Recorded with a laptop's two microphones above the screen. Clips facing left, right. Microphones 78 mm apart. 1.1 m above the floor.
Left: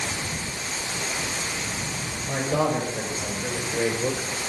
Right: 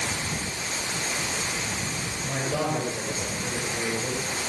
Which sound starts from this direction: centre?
A man speaking, at 2.2 s.